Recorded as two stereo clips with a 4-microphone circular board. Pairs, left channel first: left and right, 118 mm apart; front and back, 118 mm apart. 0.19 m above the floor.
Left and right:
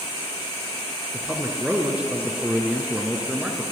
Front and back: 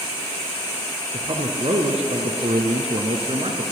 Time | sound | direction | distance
1.1 | a man speaking | 165° right | 3 m